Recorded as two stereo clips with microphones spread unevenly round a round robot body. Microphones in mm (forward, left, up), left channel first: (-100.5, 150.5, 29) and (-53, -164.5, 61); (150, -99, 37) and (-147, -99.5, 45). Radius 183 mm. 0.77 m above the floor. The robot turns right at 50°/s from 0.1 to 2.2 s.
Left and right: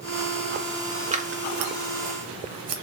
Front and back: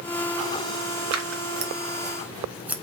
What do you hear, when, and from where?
1.1 s scissors: 150° right, 2 m; by 2.7 s 95° right, 2 m